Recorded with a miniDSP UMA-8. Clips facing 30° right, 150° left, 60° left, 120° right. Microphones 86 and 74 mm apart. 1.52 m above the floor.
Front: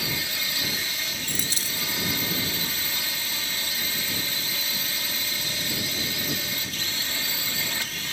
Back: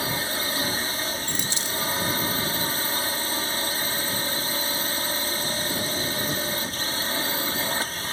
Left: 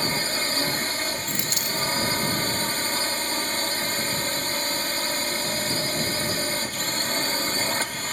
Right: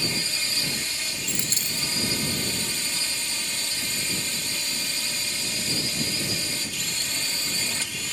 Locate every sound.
0.0 s a drone: 100° left
1.3 s a dropped coin: 65° right